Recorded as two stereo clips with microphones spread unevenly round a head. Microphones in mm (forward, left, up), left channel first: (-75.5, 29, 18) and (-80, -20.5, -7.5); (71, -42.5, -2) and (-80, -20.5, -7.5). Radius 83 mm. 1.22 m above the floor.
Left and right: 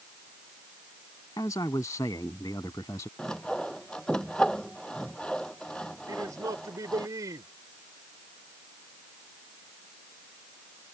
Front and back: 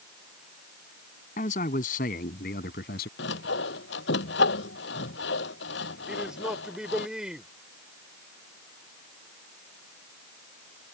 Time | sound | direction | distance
1.4 | a man speaking | 40° left | ?
3.2 | sawing | 5° left | ?
6.1 | a man speaking | 100° right | ?